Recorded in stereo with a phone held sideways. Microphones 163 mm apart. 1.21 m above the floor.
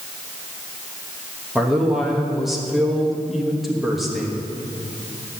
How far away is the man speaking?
About 1.2 m.